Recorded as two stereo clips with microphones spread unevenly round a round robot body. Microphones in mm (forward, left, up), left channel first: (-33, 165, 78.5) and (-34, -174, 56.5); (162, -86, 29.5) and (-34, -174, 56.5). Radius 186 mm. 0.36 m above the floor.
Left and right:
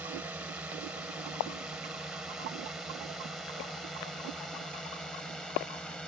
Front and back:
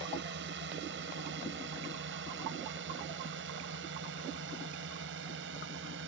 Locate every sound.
0.0 s a drone: 175° right; by 6.1 s straight behind